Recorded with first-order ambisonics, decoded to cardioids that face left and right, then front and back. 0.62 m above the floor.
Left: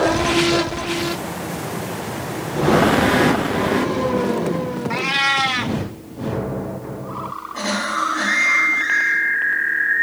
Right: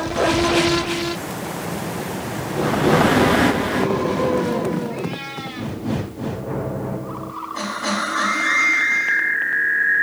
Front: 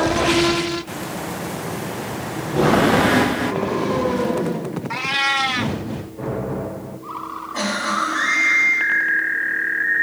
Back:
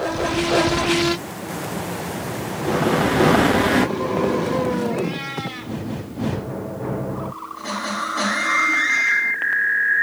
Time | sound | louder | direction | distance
4.9 | a cat meowing | left 11 dB, front 7 dB | 50° left | 0.6 m